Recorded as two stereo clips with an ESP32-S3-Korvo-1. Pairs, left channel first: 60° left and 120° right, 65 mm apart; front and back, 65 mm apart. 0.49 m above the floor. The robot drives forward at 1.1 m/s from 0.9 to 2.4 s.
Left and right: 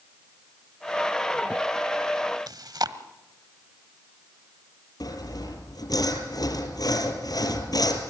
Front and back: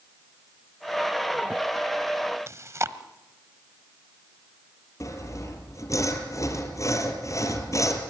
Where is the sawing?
40° left, 3 m.